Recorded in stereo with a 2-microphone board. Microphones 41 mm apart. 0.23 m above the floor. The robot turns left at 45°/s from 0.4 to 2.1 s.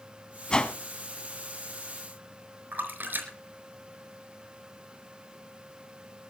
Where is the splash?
50° right (ahead or behind), 4.5 m.